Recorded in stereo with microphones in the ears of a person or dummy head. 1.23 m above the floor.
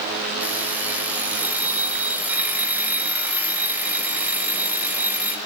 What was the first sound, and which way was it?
An alarm clock, 10° right (ahead or behind).